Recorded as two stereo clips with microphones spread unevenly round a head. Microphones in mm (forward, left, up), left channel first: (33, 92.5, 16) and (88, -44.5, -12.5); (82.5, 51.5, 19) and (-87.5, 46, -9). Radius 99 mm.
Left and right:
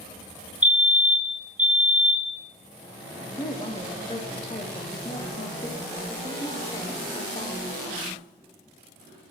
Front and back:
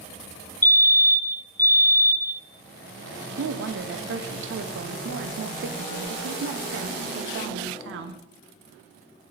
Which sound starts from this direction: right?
A fire alarm, at 0.6 s.